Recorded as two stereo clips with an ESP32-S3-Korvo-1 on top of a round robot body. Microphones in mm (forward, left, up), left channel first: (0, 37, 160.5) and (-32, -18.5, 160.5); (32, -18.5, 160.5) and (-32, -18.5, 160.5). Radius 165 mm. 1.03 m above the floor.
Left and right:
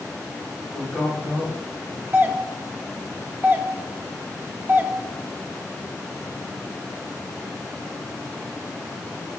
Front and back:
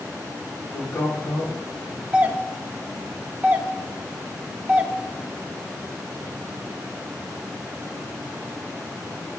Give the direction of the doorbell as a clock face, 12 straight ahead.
5 o'clock.